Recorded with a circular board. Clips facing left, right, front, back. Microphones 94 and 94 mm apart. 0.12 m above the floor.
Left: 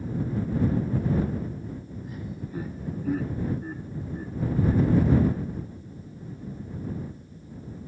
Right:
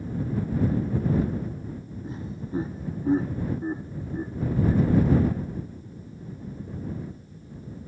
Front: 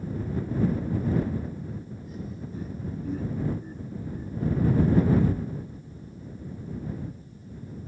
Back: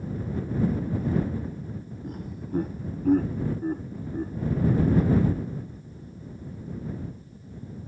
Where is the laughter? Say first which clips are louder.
Right 3 dB, back 1 dB; 150° right.